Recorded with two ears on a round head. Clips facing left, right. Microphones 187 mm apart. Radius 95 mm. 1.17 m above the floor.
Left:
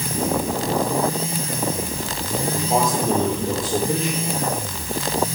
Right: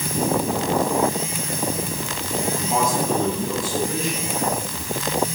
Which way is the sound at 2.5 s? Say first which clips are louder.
Left 2 dB; 30° left (ahead or behind).